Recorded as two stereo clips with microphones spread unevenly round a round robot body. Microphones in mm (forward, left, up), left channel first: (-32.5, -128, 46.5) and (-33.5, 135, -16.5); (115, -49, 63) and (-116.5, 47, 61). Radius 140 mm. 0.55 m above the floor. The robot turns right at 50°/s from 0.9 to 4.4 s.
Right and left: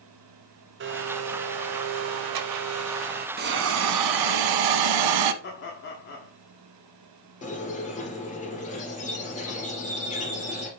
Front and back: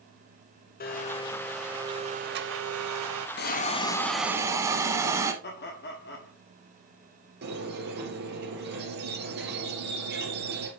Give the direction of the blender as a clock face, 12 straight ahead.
11 o'clock.